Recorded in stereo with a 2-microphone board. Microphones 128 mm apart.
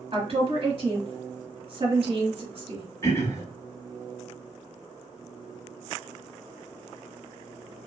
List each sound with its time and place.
0.1 s a woman speaking: 50° right (ahead or behind), 1.5 m
3.0 s throat clearing: 25° left (ahead or behind), 0.8 m